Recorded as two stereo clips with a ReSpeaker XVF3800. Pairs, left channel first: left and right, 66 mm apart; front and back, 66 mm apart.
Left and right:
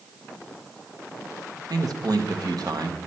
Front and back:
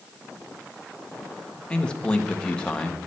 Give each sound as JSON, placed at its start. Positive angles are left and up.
{"t": 1.7, "sound": "a man speaking", "azimuth_deg": -75, "distance_m": 1.2}